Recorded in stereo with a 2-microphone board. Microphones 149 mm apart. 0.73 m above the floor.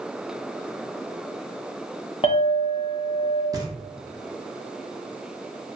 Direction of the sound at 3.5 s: 20° right (ahead or behind).